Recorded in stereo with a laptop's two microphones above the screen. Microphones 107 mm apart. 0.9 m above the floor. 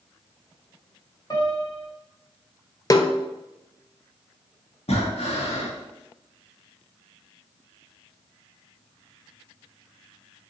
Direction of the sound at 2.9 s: 35° left (ahead or behind).